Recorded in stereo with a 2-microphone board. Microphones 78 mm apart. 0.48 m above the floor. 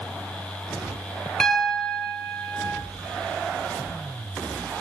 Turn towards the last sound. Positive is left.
turn(degrees=10)  # may be behind; listen again after turning